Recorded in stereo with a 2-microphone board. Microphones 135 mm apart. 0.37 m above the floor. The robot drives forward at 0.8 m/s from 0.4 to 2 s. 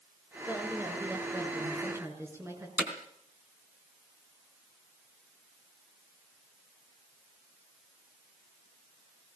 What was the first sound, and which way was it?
A woman speaking, 15° right (ahead or behind).